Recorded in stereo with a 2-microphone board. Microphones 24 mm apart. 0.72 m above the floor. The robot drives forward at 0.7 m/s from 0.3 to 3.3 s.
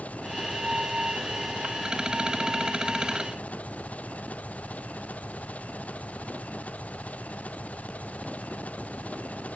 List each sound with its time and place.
0.0 s an engine running: 85° left